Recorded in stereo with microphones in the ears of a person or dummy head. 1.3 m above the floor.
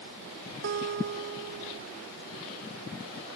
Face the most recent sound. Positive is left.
turn(degrees=-60)  # may be behind; listen again after turning